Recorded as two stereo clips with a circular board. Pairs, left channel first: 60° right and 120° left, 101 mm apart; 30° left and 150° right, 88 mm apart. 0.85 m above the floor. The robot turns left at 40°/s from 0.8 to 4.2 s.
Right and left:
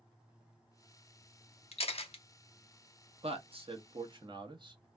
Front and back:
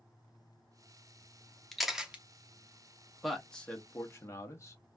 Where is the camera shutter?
55° right, 0.7 m; by 2.2 s 75° right, 0.7 m.